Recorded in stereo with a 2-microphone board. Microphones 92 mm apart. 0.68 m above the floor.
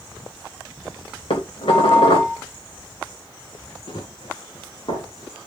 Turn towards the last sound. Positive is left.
turn(degrees=55)  # may be behind; listen again after turning